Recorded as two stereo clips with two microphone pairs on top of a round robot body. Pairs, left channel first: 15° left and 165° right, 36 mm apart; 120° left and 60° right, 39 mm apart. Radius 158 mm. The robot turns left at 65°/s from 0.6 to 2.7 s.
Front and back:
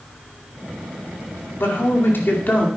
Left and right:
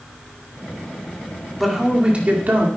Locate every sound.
1.6 s a man speaking: 30° left, 2.5 m; by 2.7 s 40° right, 2.5 m